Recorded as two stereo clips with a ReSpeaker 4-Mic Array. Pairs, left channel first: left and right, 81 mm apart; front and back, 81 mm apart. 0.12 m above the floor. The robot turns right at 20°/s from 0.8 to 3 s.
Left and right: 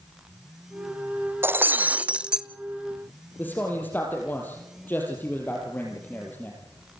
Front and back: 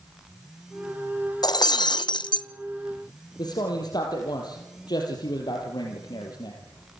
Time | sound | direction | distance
1.4 | breaking glass | 30° right | 0.7 m
3.4 | a man speaking | 25° left | 3.5 m